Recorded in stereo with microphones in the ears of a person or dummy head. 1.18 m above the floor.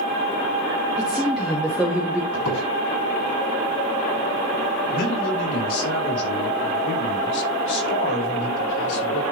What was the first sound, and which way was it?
A woman speaking, centre (ahead or behind).